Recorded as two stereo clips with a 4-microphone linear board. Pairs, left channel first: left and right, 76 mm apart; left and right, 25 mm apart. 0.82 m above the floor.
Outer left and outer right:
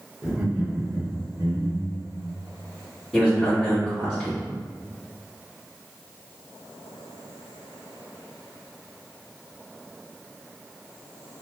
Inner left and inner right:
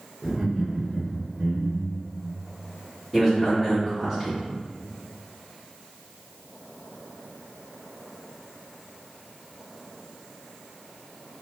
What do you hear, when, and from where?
0.2 s laughter: 15° right (ahead or behind), 1.4 m; by 2.1 s 65° right (ahead or behind), 1.6 m
3.1 s a man speaking: 5° right (ahead or behind), 1.9 m